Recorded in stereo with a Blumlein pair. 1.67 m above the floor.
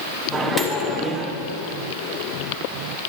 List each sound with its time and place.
0.3 s a microwave: 10° right, 1.1 m